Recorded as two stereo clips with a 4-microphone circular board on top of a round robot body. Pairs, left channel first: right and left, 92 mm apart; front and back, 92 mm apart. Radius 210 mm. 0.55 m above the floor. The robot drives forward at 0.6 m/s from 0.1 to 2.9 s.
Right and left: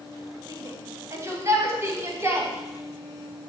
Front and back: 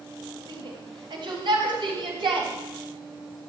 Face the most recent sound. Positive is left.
turn(degrees=155)